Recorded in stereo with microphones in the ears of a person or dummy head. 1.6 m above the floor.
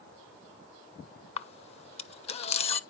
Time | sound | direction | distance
1.4 | a camera shutter | 35° left (ahead or behind) | 0.5 m